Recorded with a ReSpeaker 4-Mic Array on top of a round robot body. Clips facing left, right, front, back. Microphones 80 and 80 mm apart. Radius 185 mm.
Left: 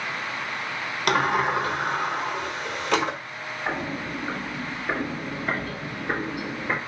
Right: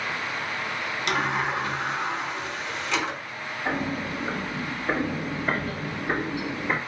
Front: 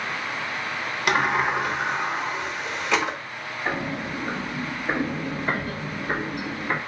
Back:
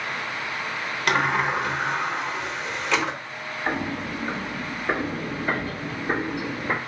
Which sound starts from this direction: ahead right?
Footsteps, at 3.6 s.